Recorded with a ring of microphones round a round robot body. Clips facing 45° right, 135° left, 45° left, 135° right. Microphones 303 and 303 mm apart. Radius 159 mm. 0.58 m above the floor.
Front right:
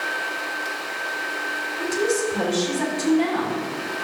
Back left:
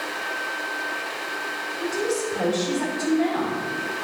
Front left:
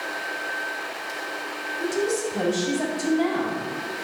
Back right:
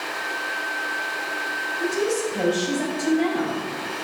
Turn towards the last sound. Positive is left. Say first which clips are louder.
# front right 3 dB, back right 1 dB
turn(degrees=-10)